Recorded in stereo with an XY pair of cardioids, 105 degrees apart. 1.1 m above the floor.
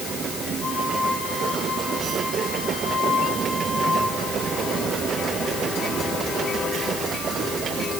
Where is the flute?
40° left, 4.5 m.